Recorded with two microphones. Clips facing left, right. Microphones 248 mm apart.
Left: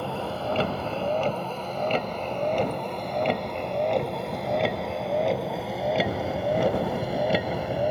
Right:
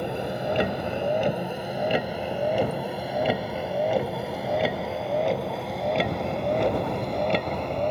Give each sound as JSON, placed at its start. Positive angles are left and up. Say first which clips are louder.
{"t": 0.0, "sound": "a vehicle", "louder": "right 2 dB", "side_deg": -15}